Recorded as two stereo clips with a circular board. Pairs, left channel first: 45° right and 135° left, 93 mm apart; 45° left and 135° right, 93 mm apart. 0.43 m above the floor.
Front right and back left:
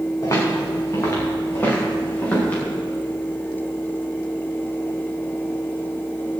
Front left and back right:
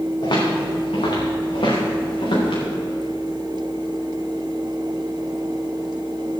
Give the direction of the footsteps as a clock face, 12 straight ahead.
12 o'clock.